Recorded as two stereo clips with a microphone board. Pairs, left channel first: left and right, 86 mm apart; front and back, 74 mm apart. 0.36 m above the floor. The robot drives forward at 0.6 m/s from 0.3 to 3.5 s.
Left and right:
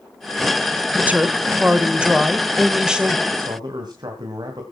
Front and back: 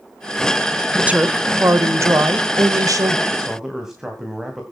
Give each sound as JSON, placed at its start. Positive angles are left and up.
{"t": 0.9, "sound": "a woman speaking", "azimuth_deg": -130, "distance_m": 0.9}
{"t": 3.3, "sound": "a man speaking", "azimuth_deg": -95, "distance_m": 2.0}